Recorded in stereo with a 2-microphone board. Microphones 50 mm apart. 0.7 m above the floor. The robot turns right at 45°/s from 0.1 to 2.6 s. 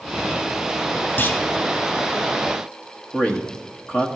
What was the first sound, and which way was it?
A clunk, 45° left (ahead or behind).